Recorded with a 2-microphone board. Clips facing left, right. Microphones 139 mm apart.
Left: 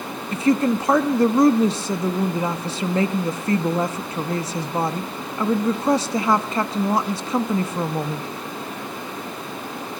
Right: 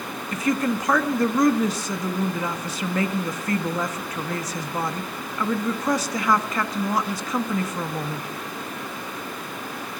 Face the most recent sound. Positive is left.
turn(degrees=30)  # may be behind; listen again after turning